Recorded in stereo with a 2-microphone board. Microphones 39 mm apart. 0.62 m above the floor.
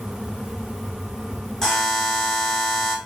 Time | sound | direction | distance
1.6 | a buzzer | 15° left (ahead or behind) | 1.2 m